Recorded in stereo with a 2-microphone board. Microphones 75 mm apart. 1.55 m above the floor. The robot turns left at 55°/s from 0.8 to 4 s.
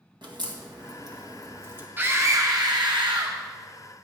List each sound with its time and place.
0.2 s a crack: 80° right, 1.7 m; by 1.9 s 30° right (ahead or behind), 1.7 m
2.0 s a scream: 25° right, 1.4 m; by 3.4 s 105° right, 1.4 m